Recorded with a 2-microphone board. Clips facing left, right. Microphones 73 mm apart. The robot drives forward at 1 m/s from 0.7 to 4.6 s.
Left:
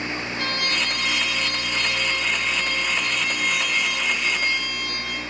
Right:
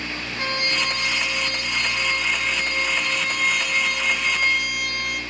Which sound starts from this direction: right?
A trumpet, at 0.4 s.